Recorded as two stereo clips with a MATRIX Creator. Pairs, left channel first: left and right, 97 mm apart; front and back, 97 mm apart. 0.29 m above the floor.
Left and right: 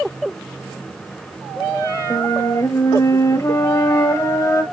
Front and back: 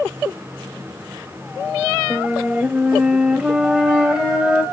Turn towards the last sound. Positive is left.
turn(degrees=110)